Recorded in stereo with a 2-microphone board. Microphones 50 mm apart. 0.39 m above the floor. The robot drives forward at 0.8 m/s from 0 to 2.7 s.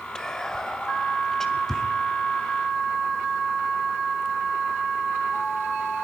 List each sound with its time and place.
0.1 s whispering: 15° left (ahead or behind), 1.6 m; by 1.8 s 10° left (ahead or behind), 2.5 m